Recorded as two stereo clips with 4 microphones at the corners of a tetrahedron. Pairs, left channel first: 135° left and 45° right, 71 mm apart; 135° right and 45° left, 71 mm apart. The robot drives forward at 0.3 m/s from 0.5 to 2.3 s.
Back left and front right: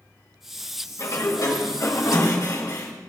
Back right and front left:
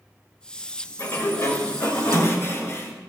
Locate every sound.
1.0 s a sliding door: 175° left, 2.0 m